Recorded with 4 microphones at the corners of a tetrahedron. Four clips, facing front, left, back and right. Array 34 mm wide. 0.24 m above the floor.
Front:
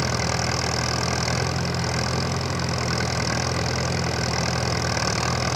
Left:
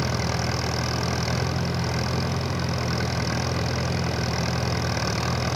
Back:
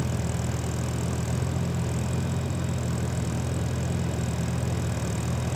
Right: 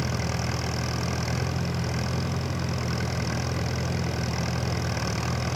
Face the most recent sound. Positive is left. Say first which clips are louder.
# left 3 dB, front 7 dB
turn(degrees=20)